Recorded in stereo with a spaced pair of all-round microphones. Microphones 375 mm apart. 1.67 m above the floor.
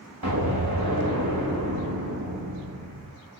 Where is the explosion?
70° right (ahead or behind), 3.5 m.